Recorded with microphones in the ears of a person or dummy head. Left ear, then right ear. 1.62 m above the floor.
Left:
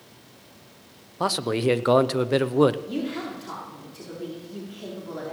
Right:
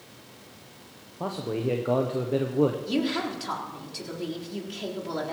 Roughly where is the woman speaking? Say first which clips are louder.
Right 3 dB; right.